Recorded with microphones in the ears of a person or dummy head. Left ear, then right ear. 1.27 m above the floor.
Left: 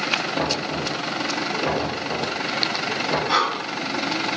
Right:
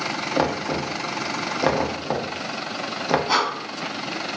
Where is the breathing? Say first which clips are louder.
Left 2 dB; 35° right (ahead or behind), 1.9 m.